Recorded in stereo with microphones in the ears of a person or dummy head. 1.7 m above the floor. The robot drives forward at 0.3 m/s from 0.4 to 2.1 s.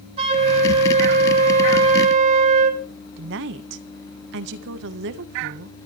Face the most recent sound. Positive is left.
turn(degrees=-70)  # may be behind; listen again after turning